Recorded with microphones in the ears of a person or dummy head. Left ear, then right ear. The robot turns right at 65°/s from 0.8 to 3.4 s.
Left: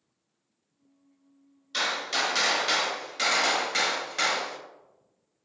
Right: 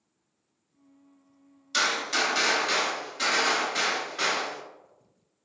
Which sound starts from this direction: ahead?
A gunshot, at 1.7 s.